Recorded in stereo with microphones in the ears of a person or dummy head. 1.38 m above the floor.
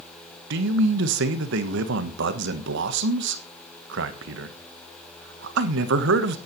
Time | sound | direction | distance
0.5 | a man speaking | 65° right (ahead or behind) | 1.3 m